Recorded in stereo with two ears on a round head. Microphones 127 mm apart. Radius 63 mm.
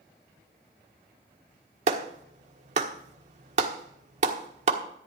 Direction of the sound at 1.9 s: 55° right (ahead or behind).